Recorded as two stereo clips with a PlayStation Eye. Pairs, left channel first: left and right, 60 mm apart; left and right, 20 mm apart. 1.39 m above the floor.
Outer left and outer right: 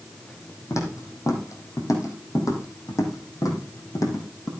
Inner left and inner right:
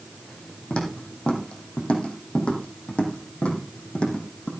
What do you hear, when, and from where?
0.7 s footsteps: 60° left (ahead or behind), 4 m; by 4.5 s 70° left (ahead or behind), 4 m